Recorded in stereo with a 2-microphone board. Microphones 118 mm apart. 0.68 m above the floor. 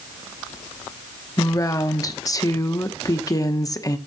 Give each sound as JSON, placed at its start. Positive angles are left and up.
{"t": 1.4, "sound": "a woman speaking", "side_deg": 30, "distance_m": 1.0}